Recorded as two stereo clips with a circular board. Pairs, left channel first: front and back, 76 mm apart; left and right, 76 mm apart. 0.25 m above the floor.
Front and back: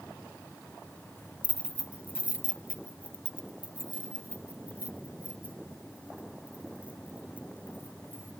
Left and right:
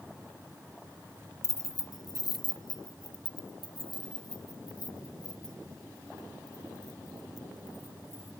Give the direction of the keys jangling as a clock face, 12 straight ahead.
8 o'clock.